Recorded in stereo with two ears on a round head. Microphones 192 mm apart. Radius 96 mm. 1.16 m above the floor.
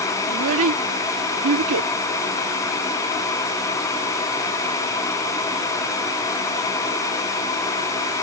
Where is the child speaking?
65° right (ahead or behind).